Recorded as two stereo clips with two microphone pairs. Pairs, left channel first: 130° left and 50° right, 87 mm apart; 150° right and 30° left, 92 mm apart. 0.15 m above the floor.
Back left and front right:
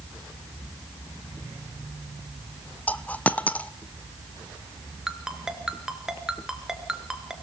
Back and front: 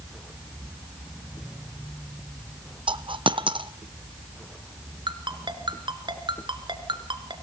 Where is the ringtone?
30° left, 1.9 m.